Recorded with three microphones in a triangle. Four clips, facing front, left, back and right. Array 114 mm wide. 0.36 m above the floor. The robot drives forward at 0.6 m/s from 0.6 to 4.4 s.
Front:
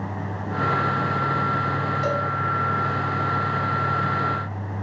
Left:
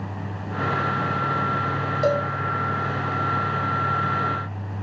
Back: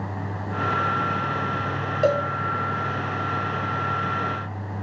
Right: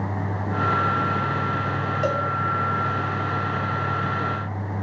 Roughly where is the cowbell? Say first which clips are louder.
Left 4 dB, back 7 dB; behind.